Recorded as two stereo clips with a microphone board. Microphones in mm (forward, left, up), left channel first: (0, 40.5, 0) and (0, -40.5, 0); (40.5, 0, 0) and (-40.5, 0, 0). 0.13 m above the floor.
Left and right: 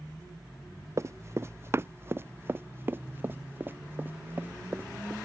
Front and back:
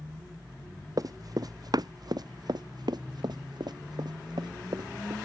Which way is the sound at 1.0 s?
140° right.